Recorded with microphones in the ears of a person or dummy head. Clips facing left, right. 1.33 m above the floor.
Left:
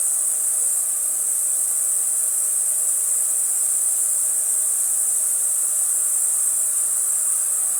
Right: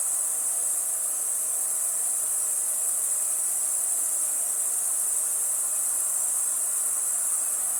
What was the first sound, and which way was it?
An insect, 35° left (ahead or behind).